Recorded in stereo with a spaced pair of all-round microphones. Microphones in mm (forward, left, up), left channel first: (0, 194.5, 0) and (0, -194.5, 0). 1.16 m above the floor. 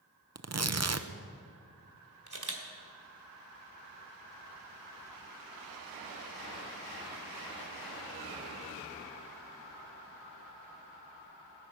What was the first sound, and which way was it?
Tearing paper, 40° right (ahead or behind).